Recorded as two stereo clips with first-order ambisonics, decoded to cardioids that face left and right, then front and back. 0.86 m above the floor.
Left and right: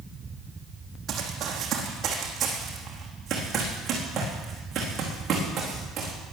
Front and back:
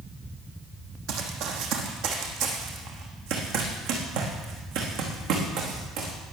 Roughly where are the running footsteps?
Behind right.